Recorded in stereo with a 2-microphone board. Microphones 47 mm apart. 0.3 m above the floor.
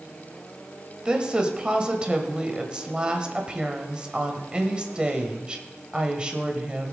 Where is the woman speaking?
20° right (ahead or behind), 1.3 m.